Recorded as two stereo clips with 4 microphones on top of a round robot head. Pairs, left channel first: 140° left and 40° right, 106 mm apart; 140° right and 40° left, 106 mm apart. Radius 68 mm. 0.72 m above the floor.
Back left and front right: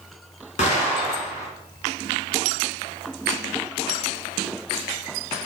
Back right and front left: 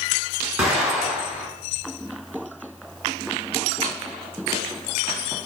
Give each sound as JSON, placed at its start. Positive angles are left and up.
{"t": 0.6, "sound": "an explosion", "azimuth_deg": 120, "distance_m": 6.0}